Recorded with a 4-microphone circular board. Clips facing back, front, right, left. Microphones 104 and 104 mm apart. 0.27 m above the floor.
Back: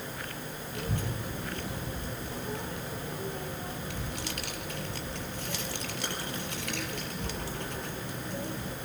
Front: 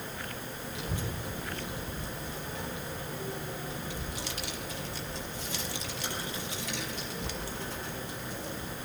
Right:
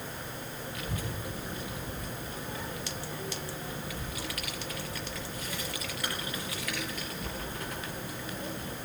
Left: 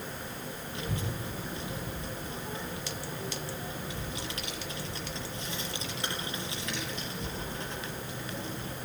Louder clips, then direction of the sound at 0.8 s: Back 3 dB, left 3 dB; 155° left.